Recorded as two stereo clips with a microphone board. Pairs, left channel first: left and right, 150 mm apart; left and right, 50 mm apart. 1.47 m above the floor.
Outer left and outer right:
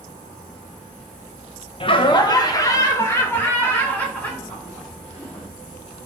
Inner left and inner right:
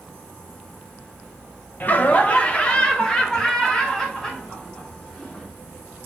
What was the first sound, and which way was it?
Laughter, 40° left (ahead or behind).